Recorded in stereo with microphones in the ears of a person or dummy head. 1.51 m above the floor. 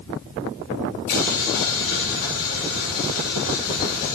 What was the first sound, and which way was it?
Boiling, 75° left (ahead or behind).